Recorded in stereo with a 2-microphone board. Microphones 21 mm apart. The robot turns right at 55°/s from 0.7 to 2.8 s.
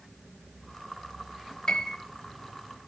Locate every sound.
1.7 s a piano: 40° left (ahead or behind), 1.1 m; by 2.0 s 25° left (ahead or behind), 1.1 m